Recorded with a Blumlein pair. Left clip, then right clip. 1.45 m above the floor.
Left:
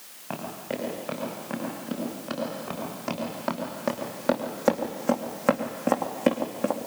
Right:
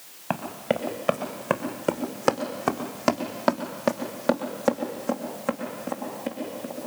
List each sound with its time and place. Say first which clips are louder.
0.3 s running footsteps: right 6 dB; 65° right, 5 m; by 6.8 s 40° left, 4 m